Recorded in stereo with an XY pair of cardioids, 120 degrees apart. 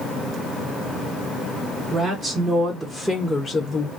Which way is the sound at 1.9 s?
45° right.